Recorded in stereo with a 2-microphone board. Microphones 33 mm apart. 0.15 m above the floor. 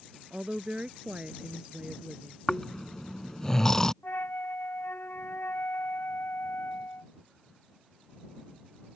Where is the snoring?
15° left (ahead or behind).